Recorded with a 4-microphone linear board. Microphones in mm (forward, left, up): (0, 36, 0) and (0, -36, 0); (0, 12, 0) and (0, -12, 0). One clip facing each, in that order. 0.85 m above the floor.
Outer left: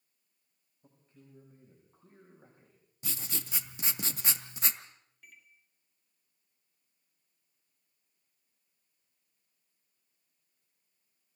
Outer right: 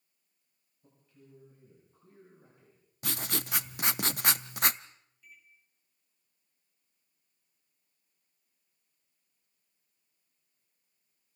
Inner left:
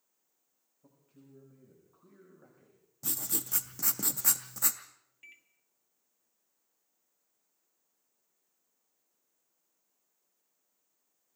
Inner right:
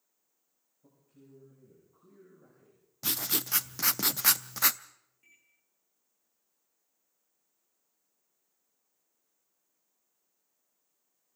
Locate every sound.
0.8 s a man speaking: 30° left (ahead or behind), 6.5 m; by 2.8 s 40° left (ahead or behind), 5.5 m
3.0 s writing: 60° right (ahead or behind), 0.6 m
5.2 s a microwave: 65° left (ahead or behind), 1.5 m